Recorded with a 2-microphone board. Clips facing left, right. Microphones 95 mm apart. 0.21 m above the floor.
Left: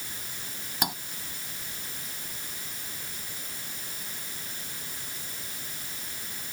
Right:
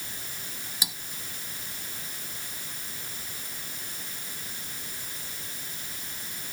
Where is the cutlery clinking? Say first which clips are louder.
Left 9 dB; 55° left (ahead or behind).